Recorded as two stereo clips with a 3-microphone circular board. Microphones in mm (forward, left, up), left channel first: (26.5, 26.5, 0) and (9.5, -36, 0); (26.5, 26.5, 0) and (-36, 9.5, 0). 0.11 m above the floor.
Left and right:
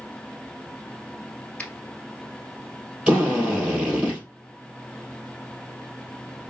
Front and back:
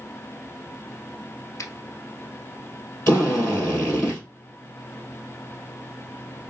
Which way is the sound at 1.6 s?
5° left.